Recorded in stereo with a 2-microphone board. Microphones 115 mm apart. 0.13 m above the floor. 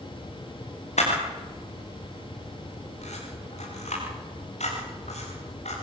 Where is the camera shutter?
75° left (ahead or behind), 9 m.